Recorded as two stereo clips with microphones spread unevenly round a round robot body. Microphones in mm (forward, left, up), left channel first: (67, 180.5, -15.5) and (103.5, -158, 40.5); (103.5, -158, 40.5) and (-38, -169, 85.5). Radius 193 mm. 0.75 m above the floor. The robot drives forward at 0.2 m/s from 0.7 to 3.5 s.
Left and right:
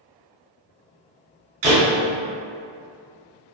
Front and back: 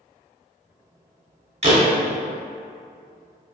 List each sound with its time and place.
1.6 s a door slam: 130° right, 1.1 m